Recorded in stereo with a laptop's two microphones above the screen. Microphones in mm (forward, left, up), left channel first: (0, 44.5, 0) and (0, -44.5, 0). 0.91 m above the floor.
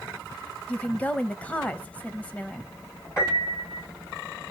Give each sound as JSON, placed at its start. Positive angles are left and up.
{"t": 0.7, "sound": "a woman speaking", "side_deg": 15, "distance_m": 0.8}
{"t": 3.2, "sound": "a piano", "side_deg": 35, "distance_m": 4.0}